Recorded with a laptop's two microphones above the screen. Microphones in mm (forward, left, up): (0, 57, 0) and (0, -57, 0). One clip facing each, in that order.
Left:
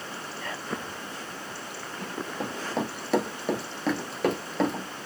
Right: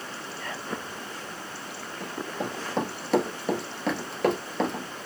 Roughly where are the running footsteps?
Centre.